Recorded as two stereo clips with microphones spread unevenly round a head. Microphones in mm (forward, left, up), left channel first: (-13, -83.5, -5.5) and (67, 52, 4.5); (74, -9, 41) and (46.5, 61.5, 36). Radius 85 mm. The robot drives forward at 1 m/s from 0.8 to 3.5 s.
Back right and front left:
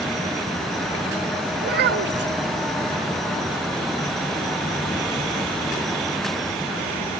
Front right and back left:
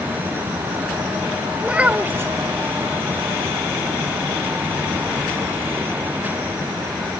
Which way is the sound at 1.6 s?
35° left.